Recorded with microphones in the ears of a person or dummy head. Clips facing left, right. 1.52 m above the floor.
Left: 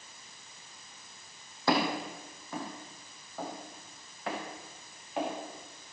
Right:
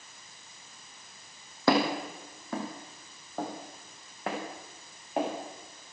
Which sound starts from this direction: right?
Footsteps, at 1.7 s.